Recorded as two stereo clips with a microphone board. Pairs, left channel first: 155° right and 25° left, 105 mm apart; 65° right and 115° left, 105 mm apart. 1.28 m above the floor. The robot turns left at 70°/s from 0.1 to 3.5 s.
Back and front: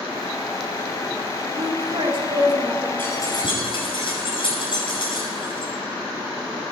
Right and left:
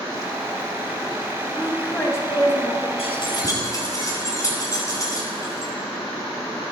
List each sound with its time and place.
1.6 s a woman speaking: 35° left, 2.5 m; by 2.9 s 60° right, 2.5 m
3.0 s keys jangling: 85° right, 6 m; by 5.7 s 120° right, 6 m